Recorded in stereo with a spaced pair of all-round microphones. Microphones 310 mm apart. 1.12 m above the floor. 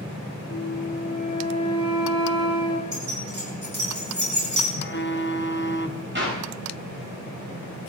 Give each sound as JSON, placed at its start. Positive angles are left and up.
{"t": 0.5, "sound": "a flute", "side_deg": 45, "distance_m": 1.7}
{"t": 2.9, "sound": "keys jangling", "side_deg": -70, "distance_m": 6.5}
{"t": 4.8, "sound": "a phone buzzing", "side_deg": 35, "distance_m": 0.7}
{"t": 6.2, "sound": "a clap", "side_deg": -40, "distance_m": 6.0}